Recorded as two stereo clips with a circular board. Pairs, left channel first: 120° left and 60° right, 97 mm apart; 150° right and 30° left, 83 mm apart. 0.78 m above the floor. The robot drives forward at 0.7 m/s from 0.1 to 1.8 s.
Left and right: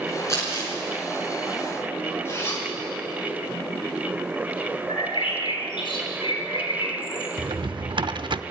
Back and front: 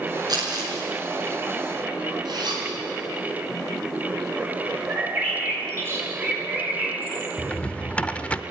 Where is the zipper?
60° left, 6 m.